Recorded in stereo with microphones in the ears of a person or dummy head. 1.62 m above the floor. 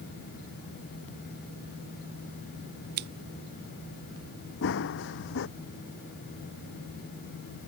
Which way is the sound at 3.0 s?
55° right (ahead or behind).